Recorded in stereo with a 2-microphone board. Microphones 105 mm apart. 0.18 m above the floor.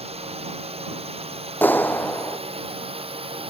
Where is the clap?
15° left (ahead or behind).